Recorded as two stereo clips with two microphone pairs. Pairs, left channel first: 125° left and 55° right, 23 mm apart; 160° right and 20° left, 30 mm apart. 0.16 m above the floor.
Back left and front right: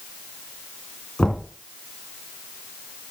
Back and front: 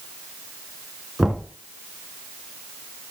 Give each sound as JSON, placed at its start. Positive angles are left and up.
{"t": 1.2, "sound": "knocking", "azimuth_deg": 85, "distance_m": 1.6}